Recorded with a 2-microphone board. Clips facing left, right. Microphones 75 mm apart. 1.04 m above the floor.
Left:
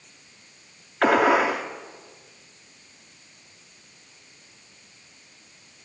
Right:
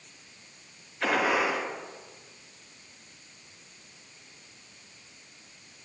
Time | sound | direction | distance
1.0 | a gunshot | 75° left (ahead or behind) | 3 m